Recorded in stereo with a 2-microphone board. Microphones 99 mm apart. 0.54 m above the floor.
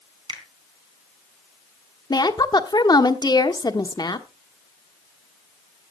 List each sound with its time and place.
0.3 s a finger snap: 60° right (ahead or behind), 3.5 m
2.1 s a woman speaking: 45° left (ahead or behind), 1.2 m